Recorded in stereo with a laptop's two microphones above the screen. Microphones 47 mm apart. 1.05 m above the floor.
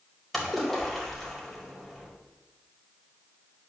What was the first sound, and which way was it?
A splash, 5° left (ahead or behind).